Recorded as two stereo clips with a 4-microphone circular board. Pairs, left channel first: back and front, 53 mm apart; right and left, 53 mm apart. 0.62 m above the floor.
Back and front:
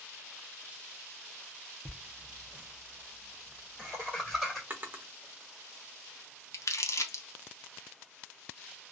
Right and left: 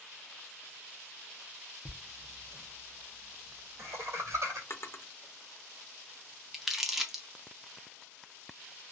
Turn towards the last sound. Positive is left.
turn(degrees=175)